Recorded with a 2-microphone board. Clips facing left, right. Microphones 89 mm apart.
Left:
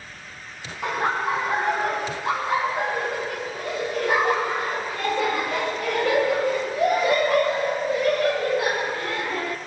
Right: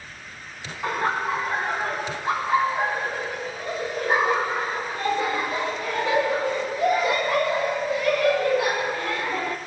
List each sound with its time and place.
0.8 s laughter: 75° left (ahead or behind), 4.5 m; by 9.6 s 15° left (ahead or behind), 1.8 m